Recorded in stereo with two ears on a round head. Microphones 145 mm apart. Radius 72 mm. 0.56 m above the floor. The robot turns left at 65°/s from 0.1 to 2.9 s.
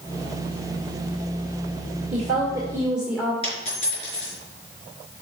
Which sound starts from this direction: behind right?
A woman speaking, at 2.1 s.